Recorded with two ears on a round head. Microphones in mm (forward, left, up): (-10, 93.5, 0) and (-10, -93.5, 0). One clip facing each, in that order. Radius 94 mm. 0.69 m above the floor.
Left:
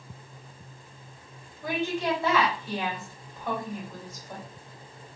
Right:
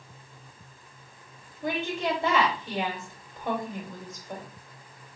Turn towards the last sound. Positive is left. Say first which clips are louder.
# left 1 dB
turn(degrees=-20)  # may be behind; listen again after turning